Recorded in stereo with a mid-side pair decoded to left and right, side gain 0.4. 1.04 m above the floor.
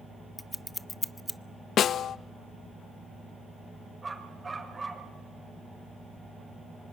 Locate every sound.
0.4 s scissors: 15° left, 0.8 m
1.8 s a snare drum: 70° left, 0.6 m
4.0 s a dog barking: 25° right, 5 m